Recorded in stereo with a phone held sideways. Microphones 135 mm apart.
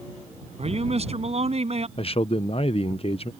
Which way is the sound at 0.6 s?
50° right (ahead or behind).